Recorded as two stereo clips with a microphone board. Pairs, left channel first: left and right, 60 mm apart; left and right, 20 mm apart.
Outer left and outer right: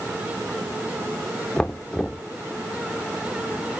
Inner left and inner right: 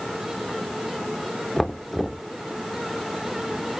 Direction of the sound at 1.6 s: 15° left (ahead or behind).